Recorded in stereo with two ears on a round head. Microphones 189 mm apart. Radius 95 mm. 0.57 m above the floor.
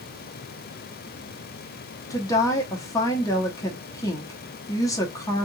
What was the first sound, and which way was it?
A woman speaking, 15° left (ahead or behind).